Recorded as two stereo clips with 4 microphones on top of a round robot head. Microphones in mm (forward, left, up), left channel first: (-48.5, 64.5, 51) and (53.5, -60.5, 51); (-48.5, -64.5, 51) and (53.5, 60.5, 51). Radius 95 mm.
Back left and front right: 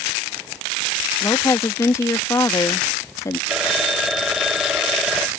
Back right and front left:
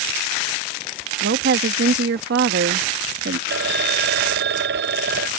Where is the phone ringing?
40° left.